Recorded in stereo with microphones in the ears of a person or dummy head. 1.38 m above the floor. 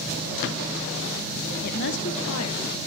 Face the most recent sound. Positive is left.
turn(degrees=90)